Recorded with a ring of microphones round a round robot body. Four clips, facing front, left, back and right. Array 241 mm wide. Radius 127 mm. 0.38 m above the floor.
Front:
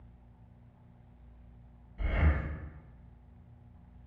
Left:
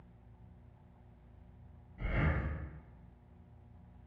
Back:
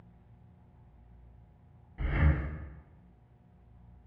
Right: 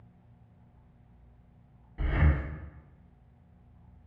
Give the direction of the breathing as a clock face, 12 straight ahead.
4 o'clock.